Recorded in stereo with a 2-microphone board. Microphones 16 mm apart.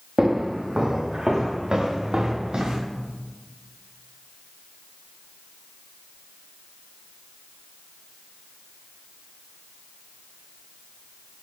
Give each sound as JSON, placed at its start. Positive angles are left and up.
{"t": 0.2, "sound": "footsteps", "side_deg": -60, "distance_m": 6.0}